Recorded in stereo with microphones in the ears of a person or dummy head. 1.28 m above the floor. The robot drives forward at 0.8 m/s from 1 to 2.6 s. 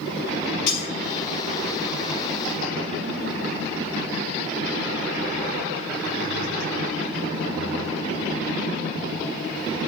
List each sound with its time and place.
0.7 s breaking glass: 65° left (ahead or behind), 5 m